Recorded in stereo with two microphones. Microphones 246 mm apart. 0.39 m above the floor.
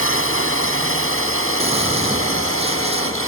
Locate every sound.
0.0 s a drone: 60° left (ahead or behind); by 3.3 s 65° left (ahead or behind)
1.6 s a gunshot: 25° right (ahead or behind)